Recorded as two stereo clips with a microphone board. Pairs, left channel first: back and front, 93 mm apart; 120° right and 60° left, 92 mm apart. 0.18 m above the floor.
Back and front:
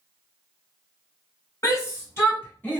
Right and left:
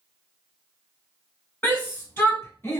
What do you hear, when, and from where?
1.6 s a shout: 170° right, 1.7 m; by 2.8 s 135° right, 1.6 m